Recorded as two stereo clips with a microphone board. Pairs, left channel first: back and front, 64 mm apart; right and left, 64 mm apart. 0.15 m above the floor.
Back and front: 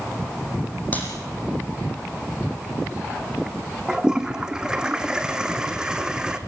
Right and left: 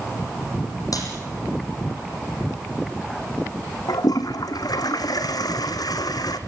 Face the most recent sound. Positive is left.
turn(degrees=-80)